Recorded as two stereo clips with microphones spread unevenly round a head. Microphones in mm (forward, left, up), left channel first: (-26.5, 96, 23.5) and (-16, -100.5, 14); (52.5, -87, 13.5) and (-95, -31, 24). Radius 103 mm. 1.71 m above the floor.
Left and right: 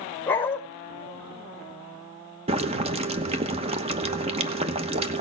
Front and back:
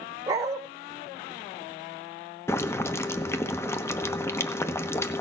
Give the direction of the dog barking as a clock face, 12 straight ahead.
7 o'clock.